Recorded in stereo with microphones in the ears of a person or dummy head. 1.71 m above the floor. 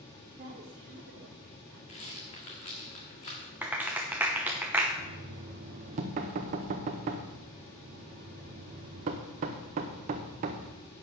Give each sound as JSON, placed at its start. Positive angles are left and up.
{"t": 0.3, "sound": "a woman speaking", "side_deg": -45, "distance_m": 1.1}
{"t": 1.9, "sound": "a rattle", "side_deg": 25, "distance_m": 1.6}
{"t": 3.6, "sound": "a clap", "side_deg": -10, "distance_m": 1.0}
{"t": 5.0, "sound": "knocking", "side_deg": -35, "distance_m": 0.8}